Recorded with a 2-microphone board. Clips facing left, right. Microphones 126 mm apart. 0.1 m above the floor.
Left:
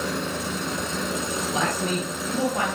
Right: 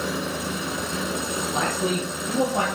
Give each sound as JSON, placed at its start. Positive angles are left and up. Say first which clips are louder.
{"t": 1.5, "sound": "a man speaking", "louder": "right 1 dB", "side_deg": 5, "distance_m": 2.5}